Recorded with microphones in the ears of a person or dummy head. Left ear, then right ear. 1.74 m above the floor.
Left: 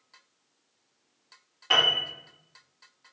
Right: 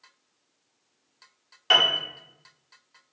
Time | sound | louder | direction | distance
1.7 | a piano | right 2 dB | 90° right | 1.2 m